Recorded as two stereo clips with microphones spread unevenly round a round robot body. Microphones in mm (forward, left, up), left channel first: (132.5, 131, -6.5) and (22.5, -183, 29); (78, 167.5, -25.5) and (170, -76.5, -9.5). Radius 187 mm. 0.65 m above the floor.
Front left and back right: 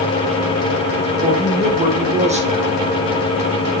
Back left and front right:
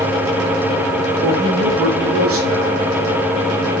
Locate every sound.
1.2 s a woman speaking: 35° right, 2.5 m